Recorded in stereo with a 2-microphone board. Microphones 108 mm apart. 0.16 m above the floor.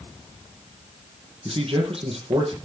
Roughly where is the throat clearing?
No throat clearing in this recording.